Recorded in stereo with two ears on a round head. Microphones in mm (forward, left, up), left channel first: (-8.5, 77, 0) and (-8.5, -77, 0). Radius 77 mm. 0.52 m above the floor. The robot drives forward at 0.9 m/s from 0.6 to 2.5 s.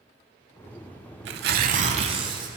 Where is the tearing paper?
75° right (ahead or behind), 0.7 m; by 2.5 s 30° right (ahead or behind), 1.4 m.